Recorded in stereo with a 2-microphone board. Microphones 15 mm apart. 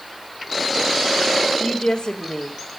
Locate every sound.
1.6 s a woman speaking: 65° left (ahead or behind), 2.0 m